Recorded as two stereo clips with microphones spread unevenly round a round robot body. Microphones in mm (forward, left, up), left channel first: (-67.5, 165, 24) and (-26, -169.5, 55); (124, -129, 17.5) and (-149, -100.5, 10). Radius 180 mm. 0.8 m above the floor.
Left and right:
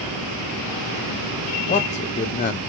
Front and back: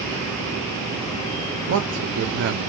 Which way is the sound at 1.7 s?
155° left.